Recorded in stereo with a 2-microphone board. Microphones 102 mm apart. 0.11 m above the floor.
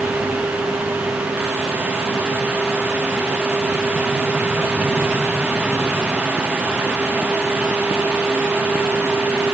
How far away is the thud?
I don't hear a thud.